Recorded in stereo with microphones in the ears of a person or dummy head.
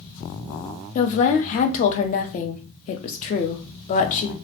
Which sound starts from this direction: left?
A woman speaking, at 0.9 s.